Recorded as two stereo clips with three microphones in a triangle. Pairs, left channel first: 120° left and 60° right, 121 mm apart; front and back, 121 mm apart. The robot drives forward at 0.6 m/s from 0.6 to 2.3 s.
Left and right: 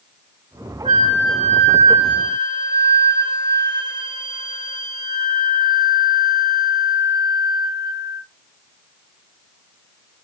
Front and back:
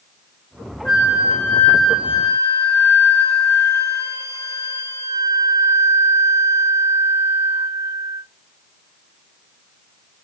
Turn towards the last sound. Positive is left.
turn(degrees=-115)